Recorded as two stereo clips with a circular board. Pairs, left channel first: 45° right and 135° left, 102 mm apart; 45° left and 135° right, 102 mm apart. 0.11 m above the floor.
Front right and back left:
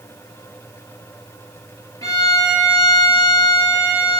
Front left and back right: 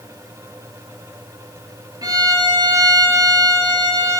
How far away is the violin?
About 2.5 m.